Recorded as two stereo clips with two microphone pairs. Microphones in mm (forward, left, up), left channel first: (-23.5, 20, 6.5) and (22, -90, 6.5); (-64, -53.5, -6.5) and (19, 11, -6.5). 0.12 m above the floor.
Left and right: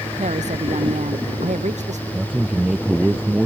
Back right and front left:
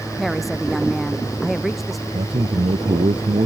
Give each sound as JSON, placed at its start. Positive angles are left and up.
{"t": 0.2, "sound": "a woman speaking", "azimuth_deg": -55}
{"t": 2.1, "sound": "a man speaking", "azimuth_deg": 15}